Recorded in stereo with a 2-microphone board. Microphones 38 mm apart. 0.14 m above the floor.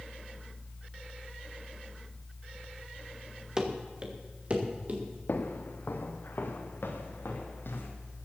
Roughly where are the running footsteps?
Centre.